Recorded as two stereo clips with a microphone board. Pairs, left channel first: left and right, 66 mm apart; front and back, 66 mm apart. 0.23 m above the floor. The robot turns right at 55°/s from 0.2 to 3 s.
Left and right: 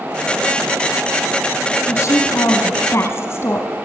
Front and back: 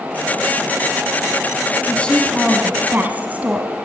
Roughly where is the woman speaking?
Ahead left.